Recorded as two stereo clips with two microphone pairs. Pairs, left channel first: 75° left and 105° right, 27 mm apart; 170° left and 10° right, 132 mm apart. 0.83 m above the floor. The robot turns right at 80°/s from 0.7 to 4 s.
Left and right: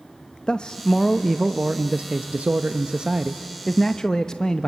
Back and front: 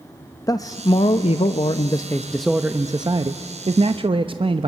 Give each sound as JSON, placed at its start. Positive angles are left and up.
{"t": 0.5, "sound": "a man speaking", "azimuth_deg": 120, "distance_m": 0.6}